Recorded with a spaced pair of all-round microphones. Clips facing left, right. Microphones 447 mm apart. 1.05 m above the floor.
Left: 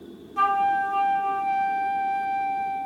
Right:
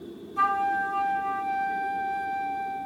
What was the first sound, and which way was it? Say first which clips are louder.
A flute: left 4 dB; 80° left.